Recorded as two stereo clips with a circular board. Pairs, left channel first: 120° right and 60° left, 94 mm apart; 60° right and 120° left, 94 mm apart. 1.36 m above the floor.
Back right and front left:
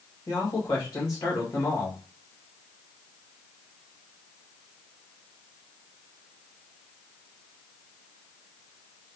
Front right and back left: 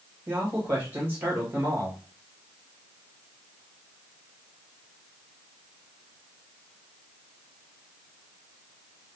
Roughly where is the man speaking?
Behind.